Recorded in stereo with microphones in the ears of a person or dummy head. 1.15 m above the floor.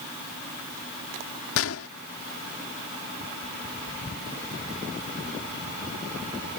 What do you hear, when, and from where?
1.6 s a gunshot: 75° left (ahead or behind)